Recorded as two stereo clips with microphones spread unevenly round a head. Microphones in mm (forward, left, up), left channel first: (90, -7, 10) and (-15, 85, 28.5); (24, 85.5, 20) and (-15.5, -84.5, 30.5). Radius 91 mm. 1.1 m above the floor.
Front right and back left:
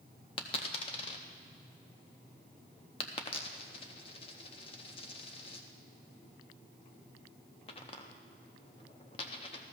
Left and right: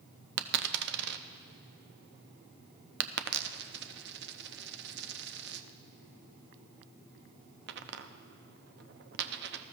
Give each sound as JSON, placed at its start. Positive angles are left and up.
{"t": 0.4, "sound": "a dropped coin", "azimuth_deg": -105, "distance_m": 0.6}